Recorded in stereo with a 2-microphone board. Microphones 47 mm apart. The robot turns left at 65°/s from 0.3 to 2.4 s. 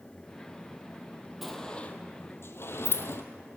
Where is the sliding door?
5° right (ahead or behind), 0.8 m; by 3.2 s 60° left (ahead or behind), 0.8 m.